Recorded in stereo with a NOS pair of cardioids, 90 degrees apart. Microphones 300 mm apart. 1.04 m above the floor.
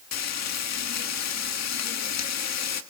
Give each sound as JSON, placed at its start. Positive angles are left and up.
{"t": 0.1, "sound": "frying", "azimuth_deg": 60, "distance_m": 1.8}